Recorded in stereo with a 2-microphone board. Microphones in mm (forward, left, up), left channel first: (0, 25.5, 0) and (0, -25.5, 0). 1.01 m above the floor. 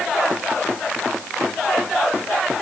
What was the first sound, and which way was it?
Only background noise.